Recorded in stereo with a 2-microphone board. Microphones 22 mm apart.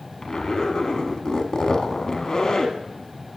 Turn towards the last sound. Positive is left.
turn(degrees=35)  # may be behind; listen again after turning